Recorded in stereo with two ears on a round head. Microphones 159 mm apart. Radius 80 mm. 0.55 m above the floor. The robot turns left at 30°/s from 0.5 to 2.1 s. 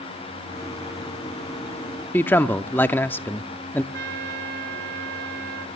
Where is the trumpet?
70° right (ahead or behind), 1.9 m.